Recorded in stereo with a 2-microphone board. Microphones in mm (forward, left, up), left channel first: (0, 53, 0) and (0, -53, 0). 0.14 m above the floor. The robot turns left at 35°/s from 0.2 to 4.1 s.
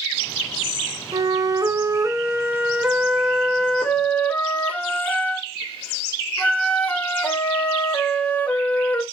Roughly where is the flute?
Right.